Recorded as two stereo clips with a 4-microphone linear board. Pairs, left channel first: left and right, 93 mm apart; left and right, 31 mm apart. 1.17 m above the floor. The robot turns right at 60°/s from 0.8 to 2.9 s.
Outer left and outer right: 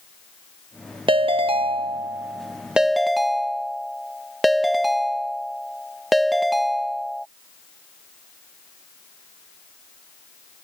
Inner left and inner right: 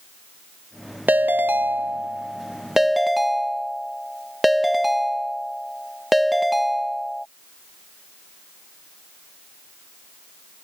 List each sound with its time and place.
1.1 s a ringtone: 110° right; by 7.3 s straight ahead